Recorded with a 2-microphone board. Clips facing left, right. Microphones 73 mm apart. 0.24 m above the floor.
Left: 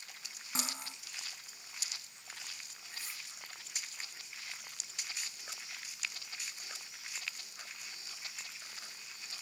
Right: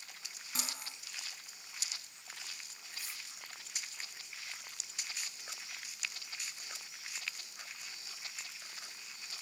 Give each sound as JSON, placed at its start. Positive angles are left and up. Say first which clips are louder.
{"t": 0.6, "sound": "cutlery clinking", "louder": "left 3 dB", "side_deg": 25, "distance_m": 1.4}
{"t": 2.9, "sound": "cutlery clinking", "louder": "left 1 dB", "side_deg": 35, "distance_m": 2.0}